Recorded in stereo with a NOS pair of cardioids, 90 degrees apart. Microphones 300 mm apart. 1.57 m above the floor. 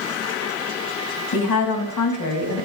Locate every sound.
1.3 s a woman speaking: 65° left, 4 m